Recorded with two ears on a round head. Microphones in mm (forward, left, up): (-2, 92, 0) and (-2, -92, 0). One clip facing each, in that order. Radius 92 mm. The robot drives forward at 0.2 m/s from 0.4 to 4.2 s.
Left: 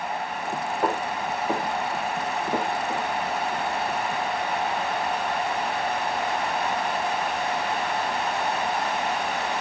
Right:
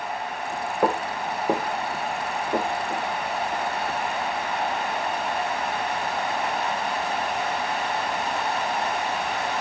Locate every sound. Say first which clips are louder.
0.8 s footsteps: right 3 dB; 55° right (ahead or behind), 0.6 m; by 3.0 s 15° left (ahead or behind), 1.4 m